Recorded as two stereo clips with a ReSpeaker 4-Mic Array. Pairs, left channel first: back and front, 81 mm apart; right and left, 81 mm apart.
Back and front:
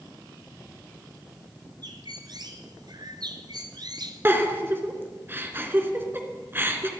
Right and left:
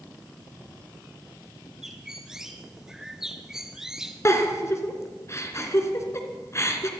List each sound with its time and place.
1.8 s a bird: 10° left, 1.7 m
4.2 s a giggle: 55° right, 2.5 m